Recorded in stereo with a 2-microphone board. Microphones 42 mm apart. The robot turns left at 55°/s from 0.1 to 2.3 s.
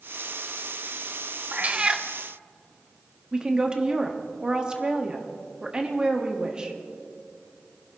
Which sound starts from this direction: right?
A cat meowing, at 1.5 s.